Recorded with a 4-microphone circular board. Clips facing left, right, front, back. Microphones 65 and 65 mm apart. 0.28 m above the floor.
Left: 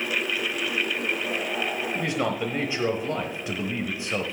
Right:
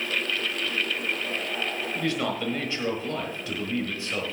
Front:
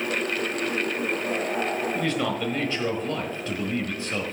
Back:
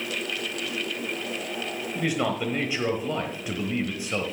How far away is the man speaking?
About 1.2 m.